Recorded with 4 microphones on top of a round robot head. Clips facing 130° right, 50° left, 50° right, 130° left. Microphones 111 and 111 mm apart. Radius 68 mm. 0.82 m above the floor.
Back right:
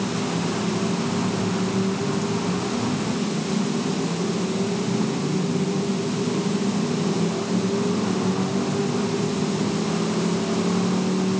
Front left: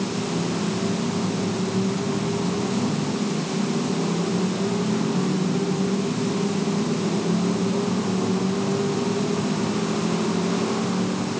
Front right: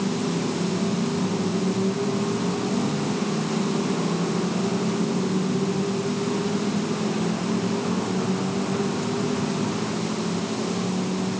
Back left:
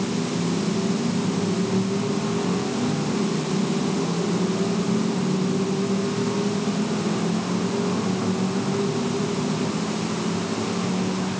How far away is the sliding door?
No sliding door in this recording.